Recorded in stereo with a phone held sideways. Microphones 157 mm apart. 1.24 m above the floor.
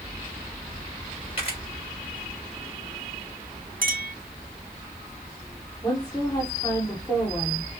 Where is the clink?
65° right (ahead or behind), 0.8 m.